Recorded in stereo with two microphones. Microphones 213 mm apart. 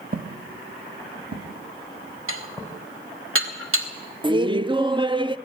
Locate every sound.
0.1 s footsteps: 40° right (ahead or behind), 1.3 m; by 2.9 s 15° right (ahead or behind), 4.5 m
2.3 s dishes clattering: 75° right (ahead or behind), 2.0 m
4.2 s laughter: 25° right (ahead or behind), 0.5 m